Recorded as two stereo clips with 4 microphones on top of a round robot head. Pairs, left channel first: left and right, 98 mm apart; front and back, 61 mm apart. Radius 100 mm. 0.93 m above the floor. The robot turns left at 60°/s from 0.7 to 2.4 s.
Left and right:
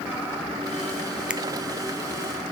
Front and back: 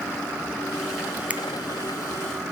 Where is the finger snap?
155° right, 0.5 m; by 1.4 s 160° right, 0.5 m.